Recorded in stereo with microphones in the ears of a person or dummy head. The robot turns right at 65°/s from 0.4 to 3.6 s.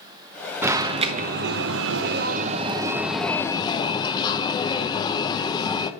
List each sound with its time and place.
0.6 s an alarm: 170° right, 0.7 m; by 5.9 s 25° left, 0.7 m